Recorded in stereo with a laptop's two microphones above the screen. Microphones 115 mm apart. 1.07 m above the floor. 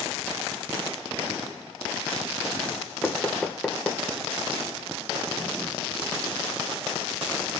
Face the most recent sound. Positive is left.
turn(degrees=10)  # may be behind; listen again after turning